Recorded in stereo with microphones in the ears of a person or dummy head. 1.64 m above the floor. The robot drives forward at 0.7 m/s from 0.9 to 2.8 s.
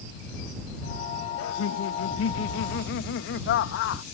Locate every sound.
1.4 s laughter: 80° left; by 4.0 s 55° left (ahead or behind)